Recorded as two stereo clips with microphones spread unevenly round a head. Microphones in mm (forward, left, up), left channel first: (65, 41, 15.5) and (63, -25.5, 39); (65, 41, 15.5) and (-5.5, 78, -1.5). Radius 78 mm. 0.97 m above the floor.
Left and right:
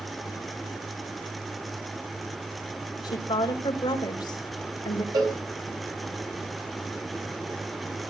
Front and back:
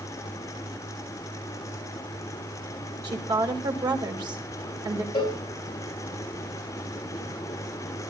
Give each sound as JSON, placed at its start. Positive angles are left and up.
{"t": 3.0, "sound": "a woman speaking", "azimuth_deg": 125, "distance_m": 4.5}
{"t": 5.1, "sound": "a cowbell", "azimuth_deg": -75, "distance_m": 4.5}